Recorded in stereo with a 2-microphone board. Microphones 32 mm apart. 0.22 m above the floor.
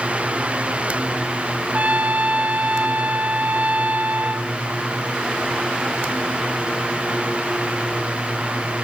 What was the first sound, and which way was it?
A trumpet, 55° right (ahead or behind).